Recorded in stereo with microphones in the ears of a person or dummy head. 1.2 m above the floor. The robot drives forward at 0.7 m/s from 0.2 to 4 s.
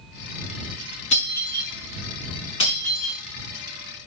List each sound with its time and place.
1.1 s breaking glass: 40° left (ahead or behind), 5.5 m; by 3.2 s 35° left (ahead or behind), 6.5 m